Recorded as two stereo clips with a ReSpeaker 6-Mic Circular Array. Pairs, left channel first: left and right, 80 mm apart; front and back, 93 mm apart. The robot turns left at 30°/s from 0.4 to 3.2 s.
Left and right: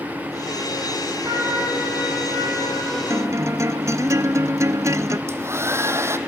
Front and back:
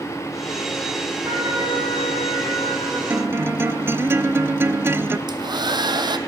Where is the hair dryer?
145° right, 0.9 m.